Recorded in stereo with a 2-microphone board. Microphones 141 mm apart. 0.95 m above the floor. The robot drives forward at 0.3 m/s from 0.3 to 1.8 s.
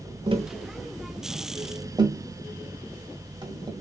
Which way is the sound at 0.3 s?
40° right (ahead or behind).